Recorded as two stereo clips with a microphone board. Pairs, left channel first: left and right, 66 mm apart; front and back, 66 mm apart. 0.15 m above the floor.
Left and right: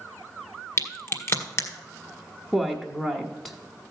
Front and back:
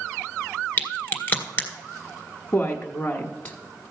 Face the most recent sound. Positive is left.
turn(degrees=10)